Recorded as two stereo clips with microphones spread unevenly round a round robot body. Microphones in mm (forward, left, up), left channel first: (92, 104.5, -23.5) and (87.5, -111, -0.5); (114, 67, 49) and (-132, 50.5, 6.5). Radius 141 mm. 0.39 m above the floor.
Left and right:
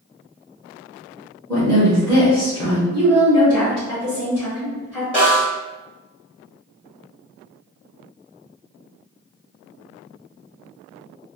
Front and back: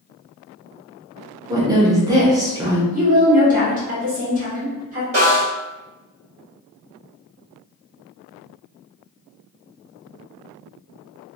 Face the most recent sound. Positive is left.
turn(degrees=-150)